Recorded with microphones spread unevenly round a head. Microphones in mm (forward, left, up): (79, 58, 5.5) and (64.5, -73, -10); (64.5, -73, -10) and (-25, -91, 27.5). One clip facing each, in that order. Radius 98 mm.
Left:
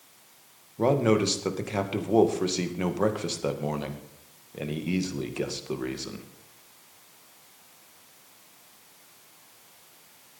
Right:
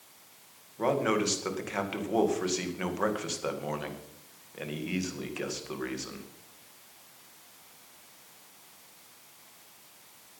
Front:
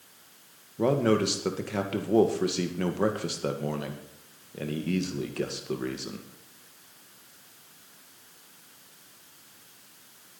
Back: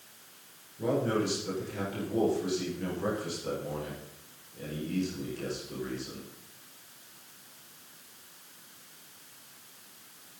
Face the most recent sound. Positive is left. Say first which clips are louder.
# left 5 dB, front 5 dB
turn(degrees=25)